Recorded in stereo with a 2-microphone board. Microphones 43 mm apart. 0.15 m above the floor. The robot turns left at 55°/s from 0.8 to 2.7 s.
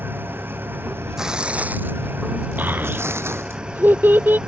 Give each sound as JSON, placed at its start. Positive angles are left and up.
{"t": 0.0, "sound": "an engine running", "azimuth_deg": -55}
{"t": 1.2, "sound": "tearing paper", "azimuth_deg": -10}
{"t": 2.6, "sound": "a child speaking", "side_deg": -45}